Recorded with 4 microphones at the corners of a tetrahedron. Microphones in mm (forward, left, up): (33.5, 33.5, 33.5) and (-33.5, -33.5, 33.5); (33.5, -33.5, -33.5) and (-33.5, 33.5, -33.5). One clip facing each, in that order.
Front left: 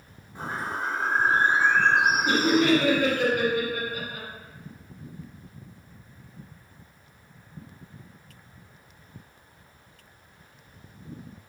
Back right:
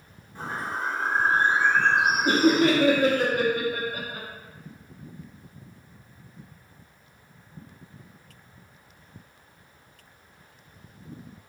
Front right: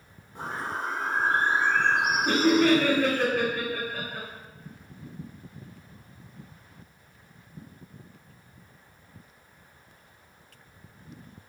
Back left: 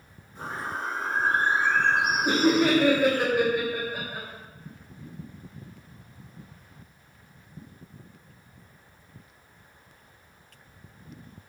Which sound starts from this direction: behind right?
Laughter, at 2.2 s.